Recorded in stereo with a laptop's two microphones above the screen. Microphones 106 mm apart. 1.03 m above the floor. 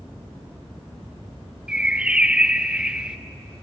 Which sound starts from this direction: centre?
A bird, at 1.7 s.